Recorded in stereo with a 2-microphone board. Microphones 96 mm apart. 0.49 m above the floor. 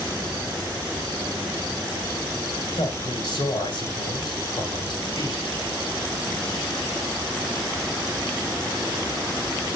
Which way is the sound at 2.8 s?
55° left (ahead or behind).